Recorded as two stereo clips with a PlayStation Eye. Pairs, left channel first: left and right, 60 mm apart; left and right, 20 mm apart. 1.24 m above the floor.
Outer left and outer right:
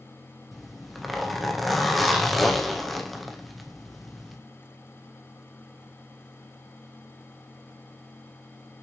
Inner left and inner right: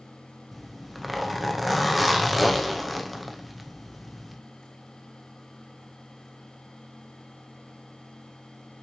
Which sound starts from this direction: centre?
A zipper, at 0.5 s.